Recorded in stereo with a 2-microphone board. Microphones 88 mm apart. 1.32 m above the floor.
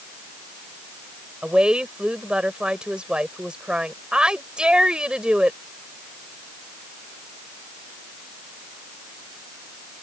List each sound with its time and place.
1.4 s a woman speaking: 10° right (ahead or behind)